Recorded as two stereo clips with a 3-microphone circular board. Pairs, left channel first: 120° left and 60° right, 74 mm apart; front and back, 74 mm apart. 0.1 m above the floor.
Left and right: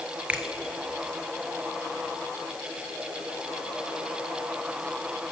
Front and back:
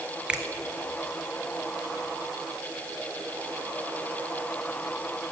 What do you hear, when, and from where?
0.3 s a finger snap: 115° right, 1.1 m